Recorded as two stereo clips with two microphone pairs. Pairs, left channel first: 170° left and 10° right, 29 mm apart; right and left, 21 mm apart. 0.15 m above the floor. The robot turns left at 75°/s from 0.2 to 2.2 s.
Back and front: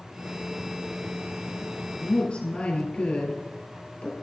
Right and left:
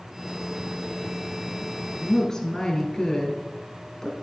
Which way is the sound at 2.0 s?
130° right.